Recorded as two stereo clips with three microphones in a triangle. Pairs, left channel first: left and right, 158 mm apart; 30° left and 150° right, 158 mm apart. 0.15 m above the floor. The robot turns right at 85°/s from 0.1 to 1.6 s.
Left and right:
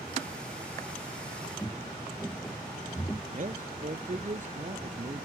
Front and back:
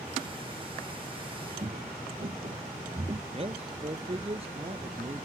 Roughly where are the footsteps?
Behind.